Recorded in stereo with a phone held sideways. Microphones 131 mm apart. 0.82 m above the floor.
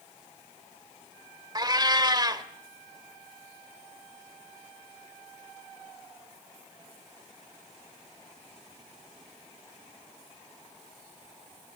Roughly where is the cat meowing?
Right.